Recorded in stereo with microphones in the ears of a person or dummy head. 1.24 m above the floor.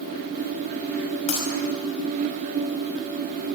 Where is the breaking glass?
35° left (ahead or behind), 5 m.